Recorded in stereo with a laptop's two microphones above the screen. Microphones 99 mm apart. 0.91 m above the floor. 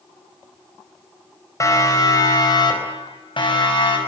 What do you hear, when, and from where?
1.6 s a siren: 30° left (ahead or behind), 4.5 m; by 4.0 s 60° left (ahead or behind), 6 m